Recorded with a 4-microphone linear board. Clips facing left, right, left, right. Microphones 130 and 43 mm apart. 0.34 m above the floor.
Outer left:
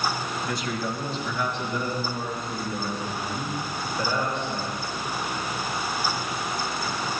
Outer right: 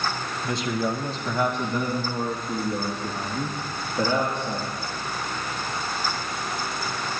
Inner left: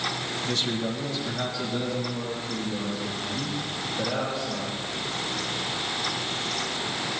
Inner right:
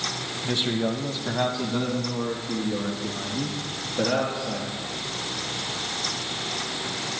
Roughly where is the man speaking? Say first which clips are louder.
Outer right 6 dB, inner right 4 dB; centre.